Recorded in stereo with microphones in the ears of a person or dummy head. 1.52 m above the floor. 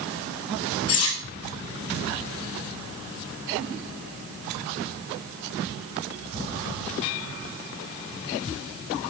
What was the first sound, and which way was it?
Cutlery clinking, 75° left (ahead or behind).